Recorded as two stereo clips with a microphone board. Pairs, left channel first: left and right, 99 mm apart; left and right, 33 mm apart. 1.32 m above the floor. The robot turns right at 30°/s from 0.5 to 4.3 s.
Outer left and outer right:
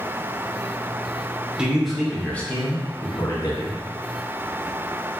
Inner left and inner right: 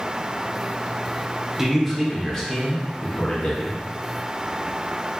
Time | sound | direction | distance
1.6 | a man speaking | 10° right | 0.8 m